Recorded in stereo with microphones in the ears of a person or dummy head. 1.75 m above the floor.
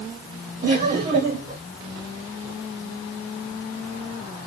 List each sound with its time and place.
0.6 s laughter: 25° right (ahead or behind), 0.9 m